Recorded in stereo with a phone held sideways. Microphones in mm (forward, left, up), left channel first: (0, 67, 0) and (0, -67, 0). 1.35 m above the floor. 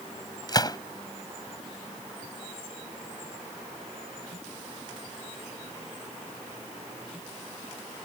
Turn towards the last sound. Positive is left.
turn(degrees=30)  # may be behind; listen again after turning